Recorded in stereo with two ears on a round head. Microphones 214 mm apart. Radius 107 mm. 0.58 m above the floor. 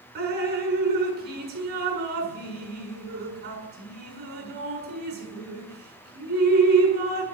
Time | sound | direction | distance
0.1 | dripping | 45° right (ahead or behind) | 7 m